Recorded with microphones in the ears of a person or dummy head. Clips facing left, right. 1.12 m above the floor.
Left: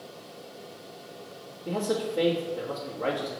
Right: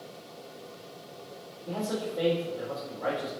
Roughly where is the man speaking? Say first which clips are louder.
Left 4 dB; left.